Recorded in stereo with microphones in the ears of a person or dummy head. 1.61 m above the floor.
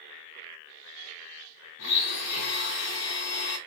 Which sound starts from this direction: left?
A blender, at 1.8 s.